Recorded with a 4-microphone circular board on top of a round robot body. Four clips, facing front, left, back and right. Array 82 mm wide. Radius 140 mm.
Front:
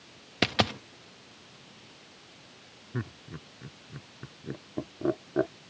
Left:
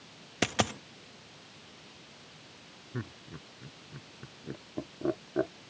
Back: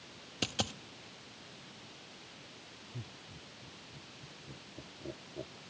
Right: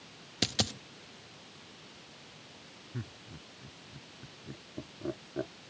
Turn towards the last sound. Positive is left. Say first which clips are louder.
# left 4 dB, front 14 dB
turn(degrees=25)